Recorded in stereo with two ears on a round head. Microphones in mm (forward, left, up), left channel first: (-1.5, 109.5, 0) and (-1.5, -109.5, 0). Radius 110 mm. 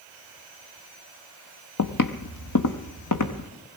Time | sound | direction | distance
1.8 | footsteps | 65° left (ahead or behind) | 0.8 m